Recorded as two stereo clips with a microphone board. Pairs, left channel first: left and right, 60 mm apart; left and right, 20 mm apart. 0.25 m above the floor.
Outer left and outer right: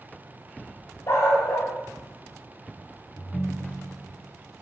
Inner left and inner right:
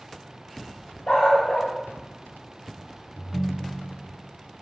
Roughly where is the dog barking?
Left.